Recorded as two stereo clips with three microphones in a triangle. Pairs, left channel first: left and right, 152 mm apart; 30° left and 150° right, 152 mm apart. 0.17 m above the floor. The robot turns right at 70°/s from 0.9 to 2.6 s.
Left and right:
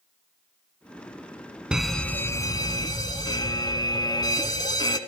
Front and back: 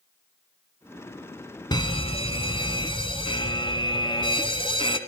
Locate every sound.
1.7 s an alarm: 10° right, 1.1 m; by 5.0 s 50° left, 1.1 m